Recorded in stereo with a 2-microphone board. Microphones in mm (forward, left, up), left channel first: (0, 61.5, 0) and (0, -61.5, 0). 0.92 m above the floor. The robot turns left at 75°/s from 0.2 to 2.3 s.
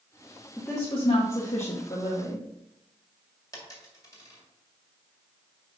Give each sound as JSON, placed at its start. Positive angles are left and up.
{"t": 0.6, "sound": "a woman speaking", "azimuth_deg": 170, "distance_m": 1.2}
{"t": 3.5, "sound": "a dropped coin", "side_deg": 30, "distance_m": 2.0}